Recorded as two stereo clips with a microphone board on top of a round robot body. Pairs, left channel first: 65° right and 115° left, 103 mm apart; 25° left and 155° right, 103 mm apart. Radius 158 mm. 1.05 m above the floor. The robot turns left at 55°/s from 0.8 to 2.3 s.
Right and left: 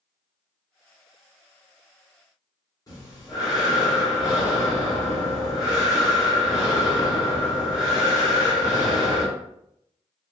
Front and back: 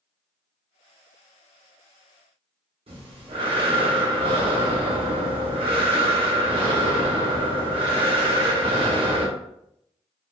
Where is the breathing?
125° right, 1.2 m.